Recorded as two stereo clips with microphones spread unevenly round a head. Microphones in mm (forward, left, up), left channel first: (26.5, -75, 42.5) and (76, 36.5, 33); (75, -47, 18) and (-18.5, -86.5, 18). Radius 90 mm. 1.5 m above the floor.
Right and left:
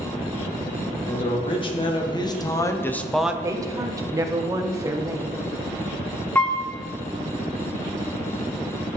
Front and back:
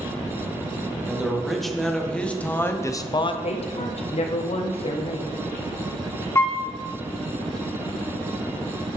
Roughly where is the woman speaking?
Ahead.